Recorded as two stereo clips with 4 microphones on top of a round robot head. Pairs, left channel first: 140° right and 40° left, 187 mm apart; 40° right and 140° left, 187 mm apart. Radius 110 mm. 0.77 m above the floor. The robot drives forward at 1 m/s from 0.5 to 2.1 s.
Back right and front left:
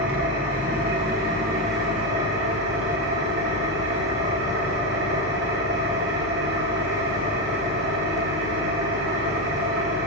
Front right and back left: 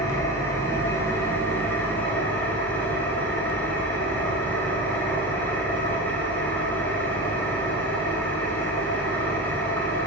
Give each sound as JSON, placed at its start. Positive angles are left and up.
{"t": 0.0, "sound": "an engine running", "azimuth_deg": 35, "distance_m": 10.0}